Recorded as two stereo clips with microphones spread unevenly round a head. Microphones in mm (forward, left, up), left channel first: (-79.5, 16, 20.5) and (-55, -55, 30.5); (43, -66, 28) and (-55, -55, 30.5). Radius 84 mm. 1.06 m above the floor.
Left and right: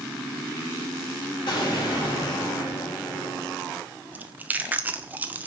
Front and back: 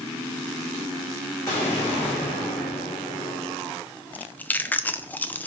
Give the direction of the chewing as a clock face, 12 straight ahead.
1 o'clock.